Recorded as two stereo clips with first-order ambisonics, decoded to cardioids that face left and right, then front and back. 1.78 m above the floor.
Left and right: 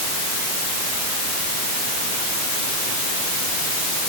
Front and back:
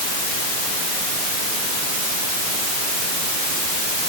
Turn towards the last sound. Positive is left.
No sound to turn to.